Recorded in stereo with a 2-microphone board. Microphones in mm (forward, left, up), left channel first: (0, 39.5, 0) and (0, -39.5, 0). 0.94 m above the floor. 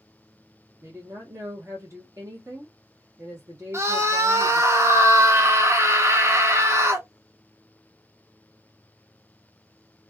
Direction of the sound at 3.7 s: 35° right (ahead or behind).